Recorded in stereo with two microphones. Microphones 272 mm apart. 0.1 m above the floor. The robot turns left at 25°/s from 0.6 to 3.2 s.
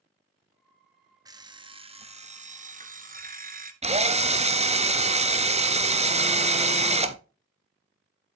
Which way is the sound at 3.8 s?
25° right (ahead or behind).